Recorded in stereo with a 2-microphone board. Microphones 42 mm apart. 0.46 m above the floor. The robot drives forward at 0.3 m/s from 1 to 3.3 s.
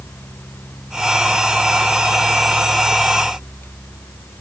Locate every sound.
Only background noise.